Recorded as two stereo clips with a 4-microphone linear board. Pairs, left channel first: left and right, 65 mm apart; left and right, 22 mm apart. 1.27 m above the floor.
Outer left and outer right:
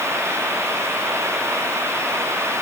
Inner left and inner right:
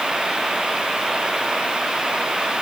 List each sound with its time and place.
Only background noise.